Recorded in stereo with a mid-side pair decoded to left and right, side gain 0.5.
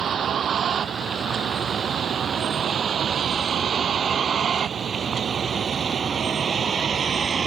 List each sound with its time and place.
0.0 s a vehicle: 50° right; by 7.5 s 35° right